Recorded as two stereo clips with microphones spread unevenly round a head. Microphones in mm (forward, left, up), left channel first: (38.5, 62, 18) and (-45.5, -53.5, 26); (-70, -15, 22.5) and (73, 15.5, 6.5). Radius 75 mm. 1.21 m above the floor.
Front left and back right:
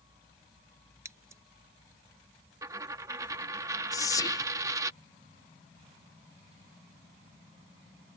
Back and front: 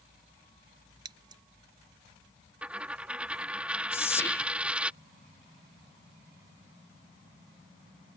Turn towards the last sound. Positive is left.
turn(degrees=115)